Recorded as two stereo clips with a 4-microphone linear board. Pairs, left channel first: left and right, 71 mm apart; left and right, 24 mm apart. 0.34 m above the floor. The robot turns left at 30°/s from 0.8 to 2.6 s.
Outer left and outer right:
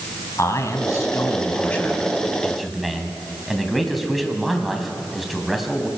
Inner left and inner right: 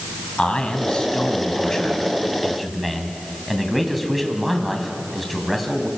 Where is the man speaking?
55° left, 2.5 m; by 5.9 s straight ahead, 2.5 m.